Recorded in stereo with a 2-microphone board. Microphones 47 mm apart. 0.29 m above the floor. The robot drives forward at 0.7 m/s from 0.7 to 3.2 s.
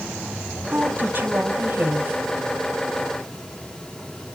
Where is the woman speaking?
40° right (ahead or behind), 1.8 m; by 2.2 s 45° right (ahead or behind), 1.7 m.